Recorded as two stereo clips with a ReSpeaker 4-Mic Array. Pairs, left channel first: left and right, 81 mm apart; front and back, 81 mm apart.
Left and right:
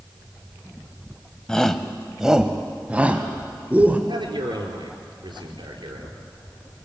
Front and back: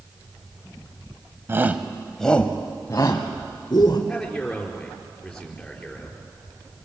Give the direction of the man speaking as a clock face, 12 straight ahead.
3 o'clock.